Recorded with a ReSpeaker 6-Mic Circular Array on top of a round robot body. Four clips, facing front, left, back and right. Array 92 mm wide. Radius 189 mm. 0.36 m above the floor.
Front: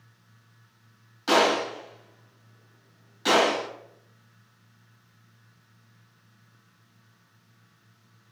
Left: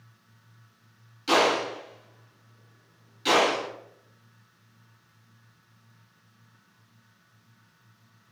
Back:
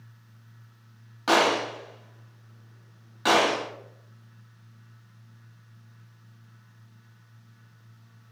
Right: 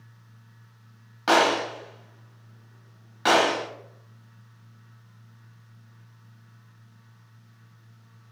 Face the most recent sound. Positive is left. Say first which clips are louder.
# right 2 dB, even
turn(degrees=-110)